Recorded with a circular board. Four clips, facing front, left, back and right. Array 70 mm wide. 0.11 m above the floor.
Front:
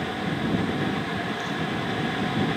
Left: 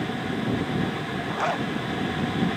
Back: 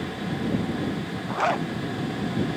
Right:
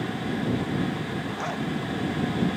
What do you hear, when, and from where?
1.3 s a zipper: 155° left